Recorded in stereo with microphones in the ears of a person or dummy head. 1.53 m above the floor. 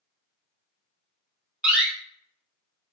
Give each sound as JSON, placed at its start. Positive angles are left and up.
{"t": 1.6, "sound": "a door slam", "side_deg": -10, "distance_m": 0.6}